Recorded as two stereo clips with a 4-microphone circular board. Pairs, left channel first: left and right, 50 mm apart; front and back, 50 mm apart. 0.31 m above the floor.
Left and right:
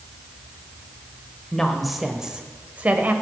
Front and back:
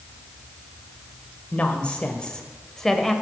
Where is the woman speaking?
15° left, 1.0 m; by 3.1 s 80° right, 1.1 m.